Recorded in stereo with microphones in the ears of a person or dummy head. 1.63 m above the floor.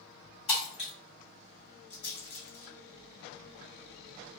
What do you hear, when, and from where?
0.5 s breaking glass: 40° left (ahead or behind), 1.9 m
1.9 s a rattle: 70° left (ahead or behind), 1.8 m